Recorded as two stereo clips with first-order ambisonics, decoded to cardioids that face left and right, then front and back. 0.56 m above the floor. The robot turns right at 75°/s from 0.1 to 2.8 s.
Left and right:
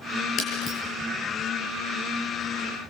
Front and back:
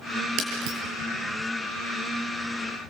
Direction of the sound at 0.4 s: 140° left.